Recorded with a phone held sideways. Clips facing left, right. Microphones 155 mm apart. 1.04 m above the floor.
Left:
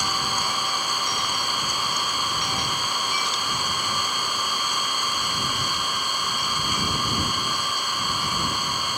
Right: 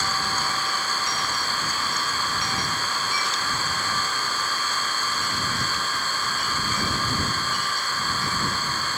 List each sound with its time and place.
0.0 s an engine running: 15° left (ahead or behind)